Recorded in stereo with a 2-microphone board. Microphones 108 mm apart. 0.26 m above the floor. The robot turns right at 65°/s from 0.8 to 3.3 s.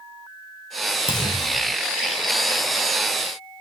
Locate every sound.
1.1 s a clunk: 115° left; by 1.8 s 160° left